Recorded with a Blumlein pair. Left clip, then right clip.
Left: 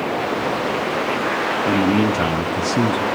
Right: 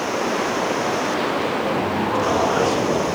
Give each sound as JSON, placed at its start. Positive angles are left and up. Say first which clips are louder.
{"t": 1.7, "sound": "a man speaking", "louder": "left 3 dB", "azimuth_deg": 50, "distance_m": 0.8}